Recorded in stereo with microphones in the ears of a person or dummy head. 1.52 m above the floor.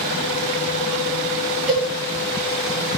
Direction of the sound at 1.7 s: 5° right (ahead or behind).